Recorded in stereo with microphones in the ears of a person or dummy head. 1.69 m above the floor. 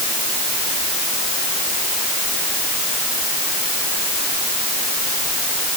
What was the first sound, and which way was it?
Only background noise.